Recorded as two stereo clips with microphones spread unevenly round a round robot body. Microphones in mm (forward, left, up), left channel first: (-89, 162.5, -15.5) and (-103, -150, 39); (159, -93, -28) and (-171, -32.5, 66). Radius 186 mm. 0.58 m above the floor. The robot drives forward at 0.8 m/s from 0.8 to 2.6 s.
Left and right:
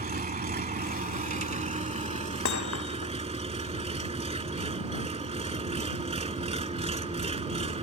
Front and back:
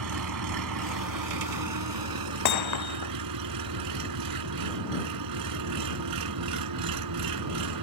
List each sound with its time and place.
0.0 s an engine running: 155° right; by 7.8 s 165° right
2.5 s hammering: 30° left